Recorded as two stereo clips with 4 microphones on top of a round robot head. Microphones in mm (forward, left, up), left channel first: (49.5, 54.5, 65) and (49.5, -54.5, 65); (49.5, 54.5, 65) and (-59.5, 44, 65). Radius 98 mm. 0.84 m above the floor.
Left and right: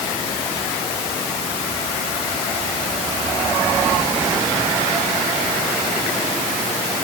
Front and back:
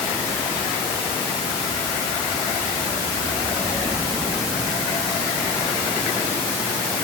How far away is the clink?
No clink in this recording.